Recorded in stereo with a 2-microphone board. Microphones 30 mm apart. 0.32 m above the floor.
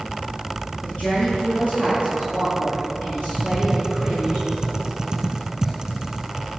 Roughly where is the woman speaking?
Left.